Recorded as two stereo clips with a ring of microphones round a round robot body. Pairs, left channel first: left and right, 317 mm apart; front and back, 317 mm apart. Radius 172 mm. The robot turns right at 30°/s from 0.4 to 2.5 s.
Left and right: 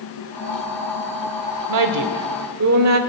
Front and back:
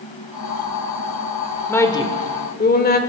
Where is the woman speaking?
85° right, 1.4 m; by 3.0 s 60° right, 1.4 m.